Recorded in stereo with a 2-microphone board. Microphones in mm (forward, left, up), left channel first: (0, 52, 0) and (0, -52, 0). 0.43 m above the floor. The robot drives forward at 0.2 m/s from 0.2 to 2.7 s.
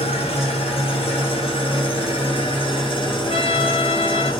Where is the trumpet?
70° left (ahead or behind), 1.1 m.